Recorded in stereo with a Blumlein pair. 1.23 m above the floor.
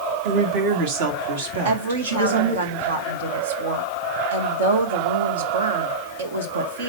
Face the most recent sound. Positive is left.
turn(degrees=-65)